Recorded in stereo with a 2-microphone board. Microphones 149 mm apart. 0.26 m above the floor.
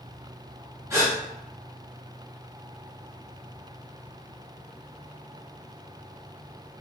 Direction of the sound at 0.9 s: 20° right (ahead or behind).